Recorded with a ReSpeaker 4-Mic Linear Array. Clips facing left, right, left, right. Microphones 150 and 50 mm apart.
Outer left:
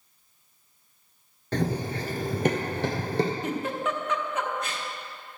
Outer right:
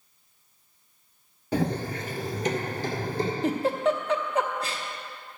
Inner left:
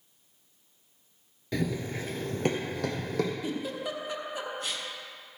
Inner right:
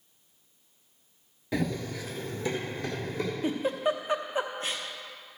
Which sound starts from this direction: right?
A giggle, at 3.4 s.